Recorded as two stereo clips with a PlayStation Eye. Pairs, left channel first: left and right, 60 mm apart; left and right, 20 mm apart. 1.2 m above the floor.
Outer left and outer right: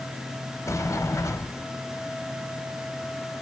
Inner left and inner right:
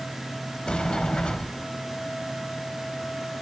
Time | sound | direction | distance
0.7 | a sliding door | 55° left (ahead or behind) | 1.2 m